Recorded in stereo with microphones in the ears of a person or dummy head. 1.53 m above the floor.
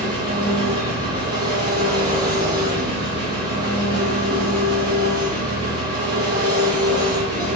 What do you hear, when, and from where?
0.0 s an engine running: 20° right (ahead or behind), 1.2 m